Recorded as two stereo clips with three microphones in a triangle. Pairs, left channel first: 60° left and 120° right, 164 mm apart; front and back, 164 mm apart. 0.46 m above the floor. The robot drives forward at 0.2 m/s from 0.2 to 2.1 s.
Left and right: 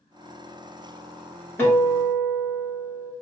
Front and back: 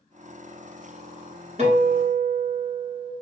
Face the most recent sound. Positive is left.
turn(degrees=140)